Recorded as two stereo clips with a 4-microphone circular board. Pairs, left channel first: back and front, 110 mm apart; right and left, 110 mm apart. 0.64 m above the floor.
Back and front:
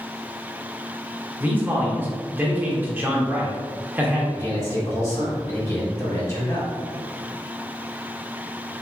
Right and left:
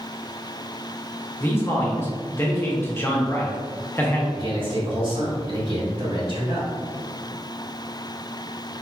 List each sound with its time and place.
1.4 s a man speaking: 50° right, 0.8 m
4.3 s a man speaking: 120° left, 1.7 m